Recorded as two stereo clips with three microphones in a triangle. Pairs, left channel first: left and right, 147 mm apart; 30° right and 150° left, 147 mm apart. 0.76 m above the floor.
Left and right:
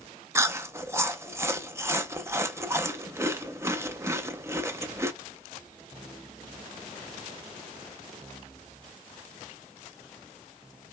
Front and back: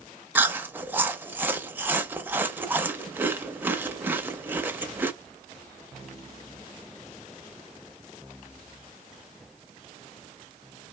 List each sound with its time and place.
0.3 s chewing: 145° right, 0.5 m